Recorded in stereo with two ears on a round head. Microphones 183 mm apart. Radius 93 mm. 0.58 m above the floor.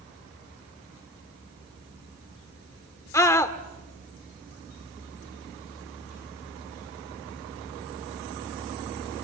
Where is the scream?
15° left (ahead or behind), 1.5 m.